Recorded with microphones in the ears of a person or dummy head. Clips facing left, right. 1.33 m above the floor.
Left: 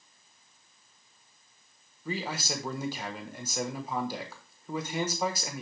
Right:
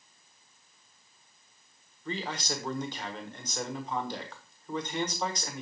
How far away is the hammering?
I don't hear hammering.